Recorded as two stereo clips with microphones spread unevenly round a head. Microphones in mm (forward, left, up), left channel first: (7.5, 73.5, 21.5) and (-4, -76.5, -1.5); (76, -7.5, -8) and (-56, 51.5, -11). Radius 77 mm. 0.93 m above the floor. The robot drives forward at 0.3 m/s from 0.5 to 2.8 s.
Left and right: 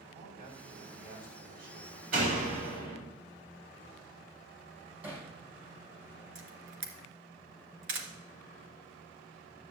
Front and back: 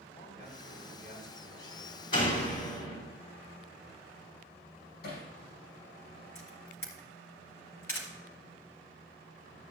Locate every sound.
0.1 s a man speaking: 60° right, 5.5 m; by 2.0 s 65° right, 5 m
2.1 s a door slam: 60° right, 5 m; by 3.0 s 65° right, 5 m
5.0 s hammering: 15° right, 5.5 m
6.3 s a camera shutter: 100° right, 2.5 m